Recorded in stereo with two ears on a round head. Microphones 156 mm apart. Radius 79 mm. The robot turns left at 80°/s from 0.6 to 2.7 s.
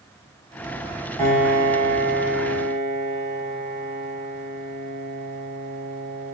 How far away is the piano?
About 3.5 m.